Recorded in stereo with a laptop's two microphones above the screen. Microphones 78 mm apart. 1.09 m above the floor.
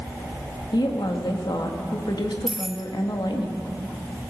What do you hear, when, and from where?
0.7 s a woman speaking: 75° left (ahead or behind), 1.3 m
2.5 s keys jangling: 5° right (ahead or behind), 0.6 m